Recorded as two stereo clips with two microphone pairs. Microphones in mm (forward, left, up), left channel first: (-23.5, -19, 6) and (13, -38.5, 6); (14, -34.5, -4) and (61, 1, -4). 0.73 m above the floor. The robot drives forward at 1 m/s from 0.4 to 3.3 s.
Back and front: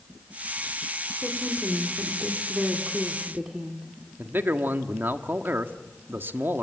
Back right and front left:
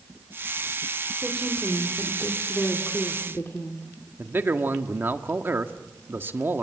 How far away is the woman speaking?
About 3 m.